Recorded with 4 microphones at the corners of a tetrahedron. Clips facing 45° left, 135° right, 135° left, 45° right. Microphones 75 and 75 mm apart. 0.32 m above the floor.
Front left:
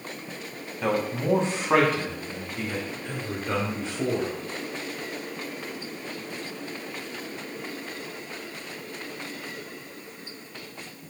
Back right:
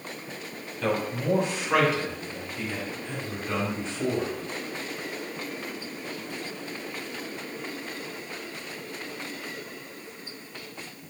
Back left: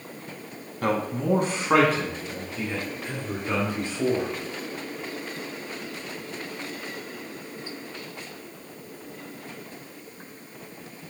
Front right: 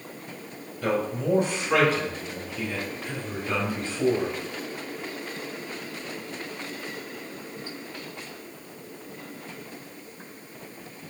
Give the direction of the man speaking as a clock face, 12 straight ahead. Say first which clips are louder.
Front left 1 dB, back left 1 dB; 8 o'clock.